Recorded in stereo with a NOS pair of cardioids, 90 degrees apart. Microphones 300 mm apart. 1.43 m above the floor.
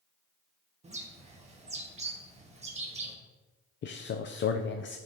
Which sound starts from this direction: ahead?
A bird, at 0.8 s.